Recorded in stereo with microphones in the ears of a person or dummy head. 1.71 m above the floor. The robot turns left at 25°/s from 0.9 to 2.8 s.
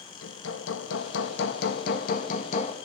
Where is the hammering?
85° left, 2.5 m; by 2.8 s 35° left, 2.5 m.